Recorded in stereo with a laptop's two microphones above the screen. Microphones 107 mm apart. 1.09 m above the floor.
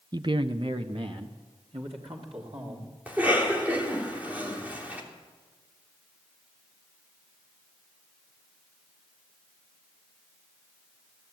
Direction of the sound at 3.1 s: 15° right (ahead or behind).